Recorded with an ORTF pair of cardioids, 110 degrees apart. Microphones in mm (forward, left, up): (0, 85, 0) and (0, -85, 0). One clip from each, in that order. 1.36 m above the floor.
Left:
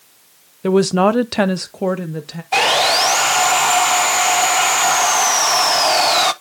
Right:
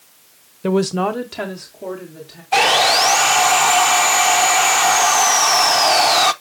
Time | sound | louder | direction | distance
0.6 | a woman speaking | left 4 dB | 5° left | 0.7 m
2.5 | sawing | right 1 dB | straight ahead | 0.5 m